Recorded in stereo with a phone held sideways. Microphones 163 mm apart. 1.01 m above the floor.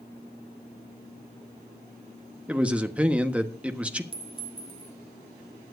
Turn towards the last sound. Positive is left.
turn(degrees=-30)  # may be behind; listen again after turning